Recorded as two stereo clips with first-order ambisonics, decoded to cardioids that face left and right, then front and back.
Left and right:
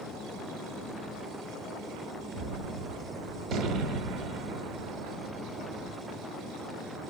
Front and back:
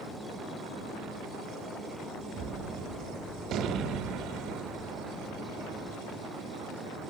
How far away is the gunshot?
About 0.6 m.